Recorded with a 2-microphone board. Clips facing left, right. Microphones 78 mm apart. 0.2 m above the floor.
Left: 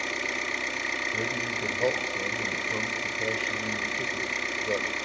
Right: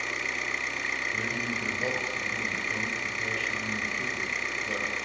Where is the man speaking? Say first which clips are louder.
Left 1 dB; 20° left (ahead or behind), 5 m.